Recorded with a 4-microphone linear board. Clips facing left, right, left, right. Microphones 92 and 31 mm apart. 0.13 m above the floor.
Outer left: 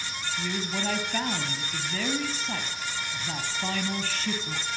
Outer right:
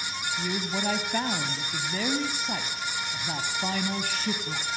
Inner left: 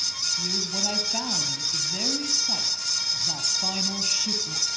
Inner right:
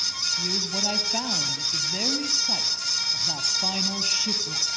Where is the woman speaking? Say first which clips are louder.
Outer right 1 dB, inner right 1 dB; 15° right (ahead or behind), 2.5 m.